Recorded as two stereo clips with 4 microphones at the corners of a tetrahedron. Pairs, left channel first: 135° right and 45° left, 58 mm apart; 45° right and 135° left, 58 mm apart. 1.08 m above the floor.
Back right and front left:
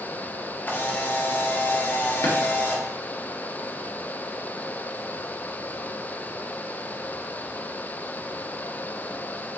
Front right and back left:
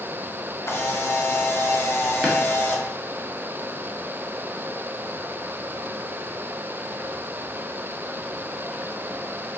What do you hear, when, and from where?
0.7 s a camera shutter: 80° right, 0.6 m
2.2 s a drawer: 140° right, 1.0 m